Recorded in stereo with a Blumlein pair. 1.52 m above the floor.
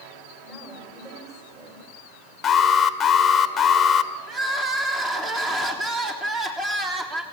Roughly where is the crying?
Ahead.